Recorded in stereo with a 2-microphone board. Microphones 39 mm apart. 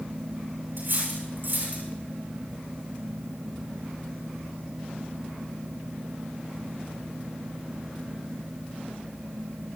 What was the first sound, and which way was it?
Cutlery clinking, 65° right (ahead or behind).